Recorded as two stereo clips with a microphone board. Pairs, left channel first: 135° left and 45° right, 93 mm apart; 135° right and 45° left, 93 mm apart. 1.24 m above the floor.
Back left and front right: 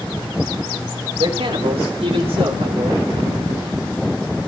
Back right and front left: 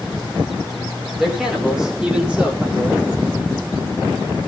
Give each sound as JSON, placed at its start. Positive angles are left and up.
{"t": 1.2, "sound": "a man speaking", "azimuth_deg": -40, "distance_m": 5.0}